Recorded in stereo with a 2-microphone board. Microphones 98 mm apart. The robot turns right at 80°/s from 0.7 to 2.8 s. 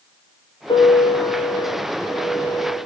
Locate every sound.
0.7 s a piano: 60° left, 7 m; by 2.8 s 135° right, 7 m